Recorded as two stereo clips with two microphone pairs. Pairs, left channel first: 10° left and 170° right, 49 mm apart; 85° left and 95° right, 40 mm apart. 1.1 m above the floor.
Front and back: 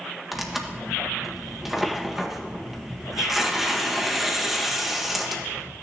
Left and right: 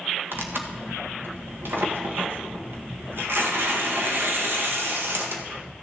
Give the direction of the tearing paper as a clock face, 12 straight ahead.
3 o'clock.